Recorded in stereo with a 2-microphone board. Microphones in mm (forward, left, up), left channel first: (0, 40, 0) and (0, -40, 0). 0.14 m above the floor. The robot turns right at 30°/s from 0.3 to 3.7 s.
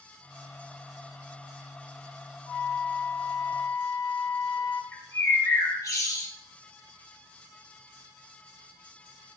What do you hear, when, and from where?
2.5 s a flute: 85° left, 5.5 m; by 4.8 s 120° left, 5.5 m
4.9 s a bird: 40° left (ahead or behind), 3 m